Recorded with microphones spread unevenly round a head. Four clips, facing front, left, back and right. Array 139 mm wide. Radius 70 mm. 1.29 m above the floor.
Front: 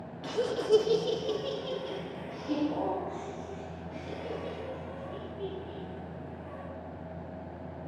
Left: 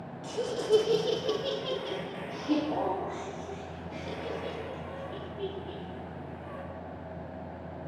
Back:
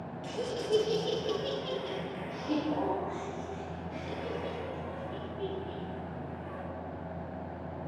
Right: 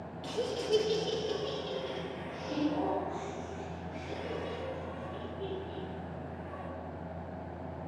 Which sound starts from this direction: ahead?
Laughter, at 0.2 s.